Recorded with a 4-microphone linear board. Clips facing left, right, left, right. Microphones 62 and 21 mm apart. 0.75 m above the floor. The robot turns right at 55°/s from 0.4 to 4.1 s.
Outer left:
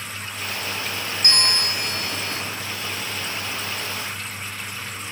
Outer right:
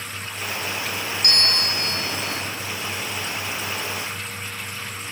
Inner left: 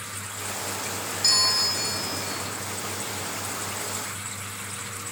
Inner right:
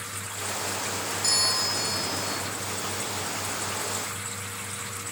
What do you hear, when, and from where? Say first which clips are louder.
1.2 s a bell: outer left 1 dB, inner left 4 dB; 30° left (ahead or behind), 0.6 m; by 2.4 s 5° left (ahead or behind), 0.6 m